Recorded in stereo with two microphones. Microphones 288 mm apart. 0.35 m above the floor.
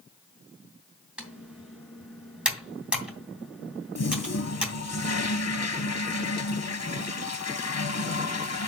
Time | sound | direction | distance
1.2 | typing on a keyboard | 5° right (ahead or behind) | 2.5 m
4.0 | a toilet flushing | 65° left (ahead or behind) | 0.7 m